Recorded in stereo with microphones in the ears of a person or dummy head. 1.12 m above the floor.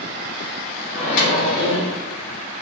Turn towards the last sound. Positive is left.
turn(degrees=50)  # may be behind; listen again after turning